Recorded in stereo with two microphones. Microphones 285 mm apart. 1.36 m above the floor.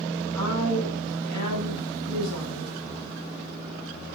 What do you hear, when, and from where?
0.3 s a woman speaking: 85° right, 8.5 m